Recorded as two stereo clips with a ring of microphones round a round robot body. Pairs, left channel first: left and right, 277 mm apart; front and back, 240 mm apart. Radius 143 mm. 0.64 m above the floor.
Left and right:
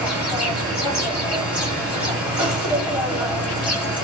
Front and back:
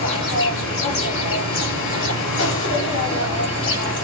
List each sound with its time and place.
0.0 s an insect: 5° right, 3 m